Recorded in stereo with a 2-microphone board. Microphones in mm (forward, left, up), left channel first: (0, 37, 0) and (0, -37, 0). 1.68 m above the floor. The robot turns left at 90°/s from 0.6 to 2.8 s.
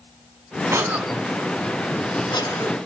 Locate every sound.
0.7 s a cough: 45° right (ahead or behind), 3.5 m; by 2.8 s 40° left (ahead or behind), 3.5 m